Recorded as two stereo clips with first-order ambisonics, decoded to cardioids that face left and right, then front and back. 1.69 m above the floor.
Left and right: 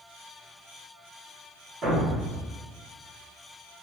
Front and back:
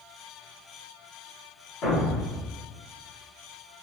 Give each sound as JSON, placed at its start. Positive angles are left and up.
{"t": 1.8, "sound": "a thud", "azimuth_deg": -35, "distance_m": 1.7}